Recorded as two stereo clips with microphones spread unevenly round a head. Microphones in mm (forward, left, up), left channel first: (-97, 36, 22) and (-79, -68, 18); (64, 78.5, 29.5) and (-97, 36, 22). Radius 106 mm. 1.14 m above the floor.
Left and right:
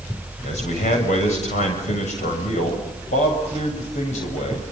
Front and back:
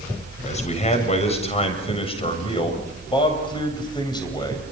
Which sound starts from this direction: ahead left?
A man speaking, at 0.4 s.